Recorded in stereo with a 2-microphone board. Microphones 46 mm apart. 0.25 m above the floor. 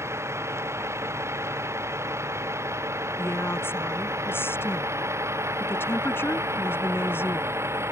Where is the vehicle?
80° right; by 7.9 s 75° right (ahead or behind).